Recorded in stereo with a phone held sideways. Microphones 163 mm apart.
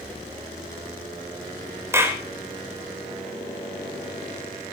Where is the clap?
15° right (ahead or behind), 3.5 m.